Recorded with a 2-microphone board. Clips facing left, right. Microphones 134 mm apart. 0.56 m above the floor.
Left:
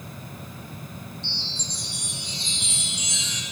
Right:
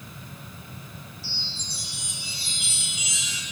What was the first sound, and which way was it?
A chime, 5° right (ahead or behind).